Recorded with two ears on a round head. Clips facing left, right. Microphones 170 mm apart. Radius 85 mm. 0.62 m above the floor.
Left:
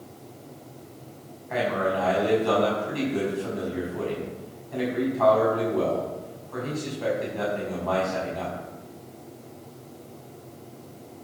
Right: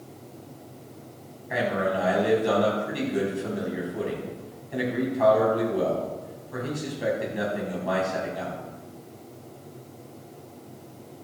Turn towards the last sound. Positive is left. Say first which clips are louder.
# even
turn(degrees=-15)  # may be behind; listen again after turning